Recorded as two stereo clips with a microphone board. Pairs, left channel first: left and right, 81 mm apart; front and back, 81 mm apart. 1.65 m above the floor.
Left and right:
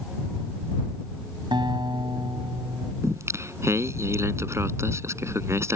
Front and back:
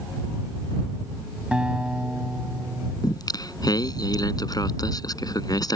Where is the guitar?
100° right.